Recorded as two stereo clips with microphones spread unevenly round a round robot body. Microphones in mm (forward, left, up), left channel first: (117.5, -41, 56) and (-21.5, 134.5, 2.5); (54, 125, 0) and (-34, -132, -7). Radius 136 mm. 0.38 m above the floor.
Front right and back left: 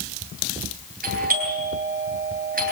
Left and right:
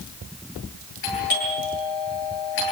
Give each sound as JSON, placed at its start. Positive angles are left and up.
{"t": 1.0, "sound": "a doorbell", "azimuth_deg": 80, "distance_m": 9.5}